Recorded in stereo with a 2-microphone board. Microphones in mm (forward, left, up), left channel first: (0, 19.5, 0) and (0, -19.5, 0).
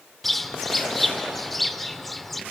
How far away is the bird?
About 1.1 m.